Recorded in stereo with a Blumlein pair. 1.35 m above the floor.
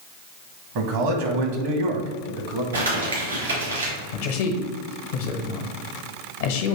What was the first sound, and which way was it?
A man speaking, 50° right.